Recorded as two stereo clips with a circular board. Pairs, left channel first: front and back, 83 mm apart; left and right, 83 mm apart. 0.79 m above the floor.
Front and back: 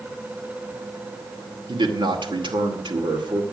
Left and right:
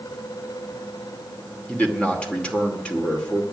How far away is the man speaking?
About 2.5 m.